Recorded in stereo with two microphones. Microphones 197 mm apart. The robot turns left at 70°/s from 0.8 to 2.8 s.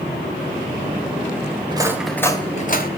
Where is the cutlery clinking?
25° right (ahead or behind), 2.5 m; by 2.9 s 50° left (ahead or behind), 2.5 m.